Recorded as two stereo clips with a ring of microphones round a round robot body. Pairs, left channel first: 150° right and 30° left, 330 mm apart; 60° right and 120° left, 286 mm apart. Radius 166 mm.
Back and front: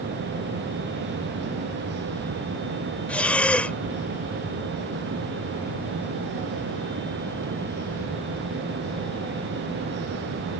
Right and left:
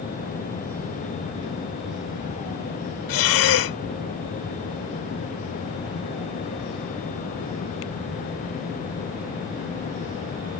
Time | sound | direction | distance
3.1 | breathing | 65° right | ?